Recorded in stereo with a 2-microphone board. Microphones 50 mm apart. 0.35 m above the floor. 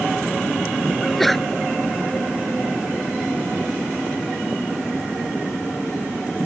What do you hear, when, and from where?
1.0 s a sneeze: centre (ahead or behind)